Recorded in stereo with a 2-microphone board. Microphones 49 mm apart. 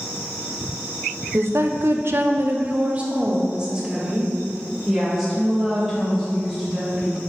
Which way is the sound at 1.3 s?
60° right (ahead or behind).